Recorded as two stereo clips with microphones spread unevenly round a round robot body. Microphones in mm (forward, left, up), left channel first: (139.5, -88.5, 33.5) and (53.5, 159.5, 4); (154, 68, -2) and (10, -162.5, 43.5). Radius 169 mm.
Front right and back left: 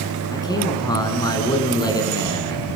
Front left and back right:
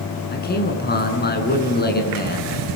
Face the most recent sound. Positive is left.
turn(degrees=5)